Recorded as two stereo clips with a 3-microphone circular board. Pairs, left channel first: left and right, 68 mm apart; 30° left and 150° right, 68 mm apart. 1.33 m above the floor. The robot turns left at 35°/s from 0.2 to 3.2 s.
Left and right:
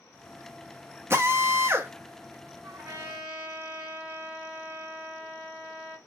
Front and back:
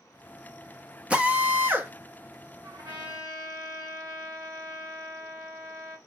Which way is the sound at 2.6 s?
135° right.